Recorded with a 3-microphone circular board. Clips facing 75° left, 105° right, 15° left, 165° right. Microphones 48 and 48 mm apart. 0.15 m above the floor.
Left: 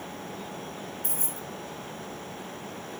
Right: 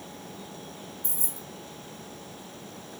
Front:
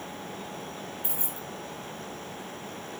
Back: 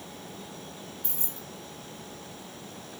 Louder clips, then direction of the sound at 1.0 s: Left 5 dB, front 5 dB; 85° left.